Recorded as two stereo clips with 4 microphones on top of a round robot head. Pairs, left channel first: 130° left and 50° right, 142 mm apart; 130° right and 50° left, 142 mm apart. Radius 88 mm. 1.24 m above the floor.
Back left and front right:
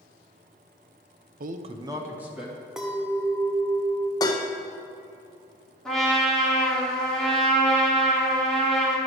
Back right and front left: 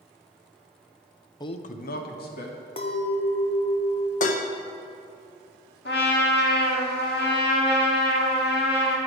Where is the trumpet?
145° right, 1.3 m.